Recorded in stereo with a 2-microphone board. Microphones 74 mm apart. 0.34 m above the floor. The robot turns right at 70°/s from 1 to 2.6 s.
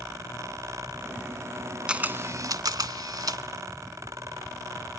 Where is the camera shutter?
165° right, 0.7 m; by 3.4 s 115° right, 0.7 m.